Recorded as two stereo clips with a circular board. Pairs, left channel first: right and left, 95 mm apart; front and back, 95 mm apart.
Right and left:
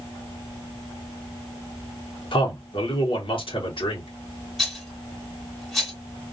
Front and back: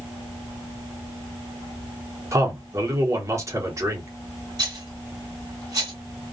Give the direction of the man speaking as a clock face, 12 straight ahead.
4 o'clock.